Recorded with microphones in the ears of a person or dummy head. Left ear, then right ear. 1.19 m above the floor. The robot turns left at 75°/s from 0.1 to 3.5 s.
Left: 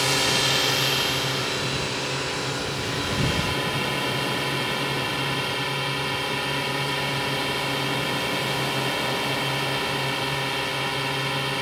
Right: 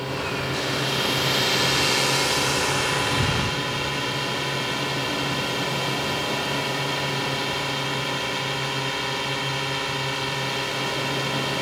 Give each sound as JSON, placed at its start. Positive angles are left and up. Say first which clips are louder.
{"t": 0.0, "sound": "a drone", "louder": "left 6 dB", "azimuth_deg": 70}